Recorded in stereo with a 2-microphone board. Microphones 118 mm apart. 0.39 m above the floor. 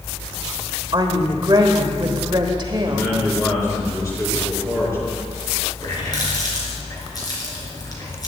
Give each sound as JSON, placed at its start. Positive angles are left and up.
{"t": 0.9, "sound": "a woman speaking", "side_deg": -40, "distance_m": 1.1}
{"t": 2.8, "sound": "a man speaking", "side_deg": 25, "distance_m": 5.0}
{"t": 5.8, "sound": "a running tap", "side_deg": 35, "distance_m": 3.5}